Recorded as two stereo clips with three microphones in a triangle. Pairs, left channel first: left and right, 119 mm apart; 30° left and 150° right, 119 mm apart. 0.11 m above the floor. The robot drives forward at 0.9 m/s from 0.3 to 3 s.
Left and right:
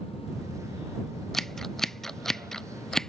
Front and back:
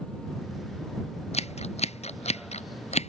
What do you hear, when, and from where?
1.3 s scissors: 5° left